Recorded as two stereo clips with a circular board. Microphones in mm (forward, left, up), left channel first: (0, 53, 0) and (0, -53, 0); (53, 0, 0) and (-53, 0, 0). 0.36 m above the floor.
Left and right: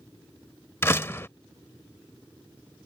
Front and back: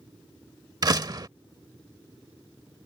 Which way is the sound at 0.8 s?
150° left.